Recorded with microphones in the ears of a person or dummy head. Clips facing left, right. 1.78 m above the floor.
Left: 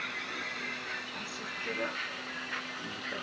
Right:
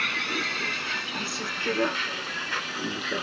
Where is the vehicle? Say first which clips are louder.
Right 9 dB; 80° right; by 3.2 s 75° right (ahead or behind).